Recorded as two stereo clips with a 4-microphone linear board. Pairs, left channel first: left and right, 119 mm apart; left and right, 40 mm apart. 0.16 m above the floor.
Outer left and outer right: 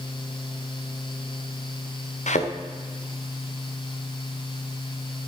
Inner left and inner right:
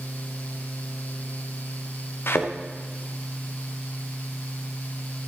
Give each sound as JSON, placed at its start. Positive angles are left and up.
{"t": 2.3, "sound": "a thud", "side_deg": 80, "distance_m": 2.5}